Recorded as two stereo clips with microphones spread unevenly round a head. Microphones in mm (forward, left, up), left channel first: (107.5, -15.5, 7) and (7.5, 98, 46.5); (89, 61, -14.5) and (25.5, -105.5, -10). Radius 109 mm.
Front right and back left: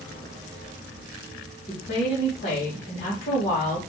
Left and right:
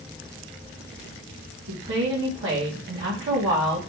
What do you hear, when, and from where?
1.7 s a woman speaking: 100° right, 2 m